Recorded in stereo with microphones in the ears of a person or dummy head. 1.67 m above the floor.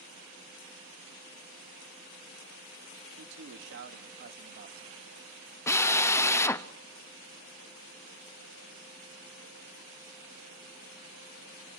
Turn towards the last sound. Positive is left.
turn(degrees=10)  # may be behind; listen again after turning